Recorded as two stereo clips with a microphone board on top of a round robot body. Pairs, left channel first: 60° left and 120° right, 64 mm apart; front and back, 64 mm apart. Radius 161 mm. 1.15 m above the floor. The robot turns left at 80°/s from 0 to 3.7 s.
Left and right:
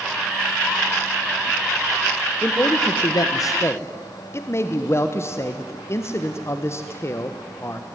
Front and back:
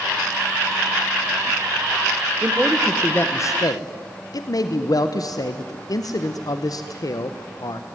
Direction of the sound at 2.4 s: 120° left.